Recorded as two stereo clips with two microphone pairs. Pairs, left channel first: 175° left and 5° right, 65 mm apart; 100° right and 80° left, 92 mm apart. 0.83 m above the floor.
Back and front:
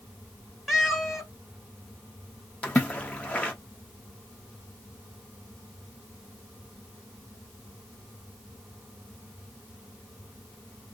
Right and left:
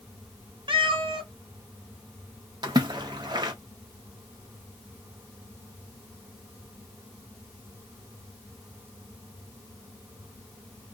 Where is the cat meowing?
85° left, 1.0 m.